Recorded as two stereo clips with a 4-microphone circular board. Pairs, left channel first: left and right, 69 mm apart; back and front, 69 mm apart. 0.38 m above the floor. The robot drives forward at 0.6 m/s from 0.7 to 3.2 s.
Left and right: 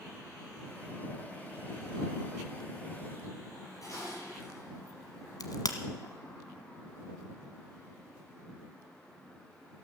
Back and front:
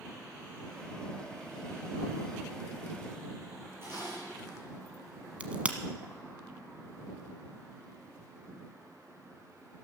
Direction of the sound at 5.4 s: 70° left.